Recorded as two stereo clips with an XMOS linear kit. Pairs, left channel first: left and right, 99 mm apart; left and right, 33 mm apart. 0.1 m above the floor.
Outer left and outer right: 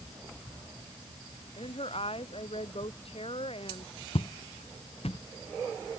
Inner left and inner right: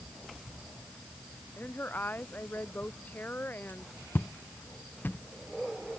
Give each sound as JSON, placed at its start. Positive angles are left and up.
{"t": 1.6, "sound": "a woman speaking", "side_deg": 80}
{"t": 4.2, "sound": "footsteps", "side_deg": 85}